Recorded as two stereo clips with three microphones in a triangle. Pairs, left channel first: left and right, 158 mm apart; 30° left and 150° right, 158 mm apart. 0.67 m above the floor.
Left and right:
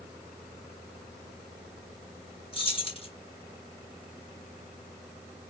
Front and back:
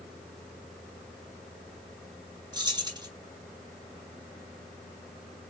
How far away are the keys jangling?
About 3.5 m.